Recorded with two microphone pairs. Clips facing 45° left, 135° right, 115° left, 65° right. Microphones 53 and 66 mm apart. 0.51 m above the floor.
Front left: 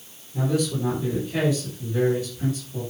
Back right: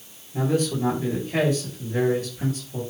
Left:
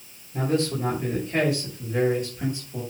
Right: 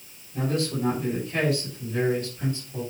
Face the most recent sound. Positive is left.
turn(degrees=-170)